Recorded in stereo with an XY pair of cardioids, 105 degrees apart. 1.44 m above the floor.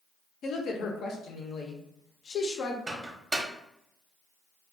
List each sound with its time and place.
0.4 s a woman speaking: 60° left, 0.7 m
2.9 s a microwave: 20° right, 0.7 m